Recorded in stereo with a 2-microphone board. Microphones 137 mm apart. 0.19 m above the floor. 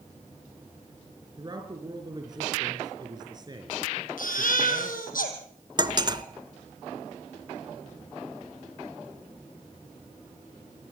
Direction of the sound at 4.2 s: 80° left.